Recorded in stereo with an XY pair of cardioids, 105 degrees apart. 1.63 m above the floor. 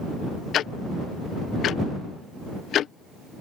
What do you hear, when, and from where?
0.5 s ticking: 70° left